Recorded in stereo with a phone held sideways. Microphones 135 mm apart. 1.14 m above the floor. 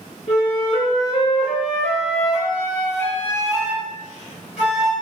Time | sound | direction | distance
0.3 | a flute | 55° left (ahead or behind) | 1.5 m